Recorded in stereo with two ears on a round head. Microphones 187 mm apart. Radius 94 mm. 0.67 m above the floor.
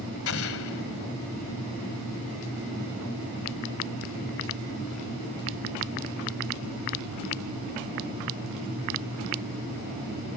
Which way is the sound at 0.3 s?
75° left (ahead or behind).